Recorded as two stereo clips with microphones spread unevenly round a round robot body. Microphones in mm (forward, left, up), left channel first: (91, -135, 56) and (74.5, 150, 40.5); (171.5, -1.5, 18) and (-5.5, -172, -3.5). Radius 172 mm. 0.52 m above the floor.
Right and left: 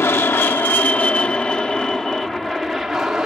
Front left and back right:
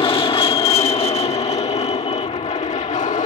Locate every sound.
0.0 s an aircraft: 10° right; by 3.3 s 10° left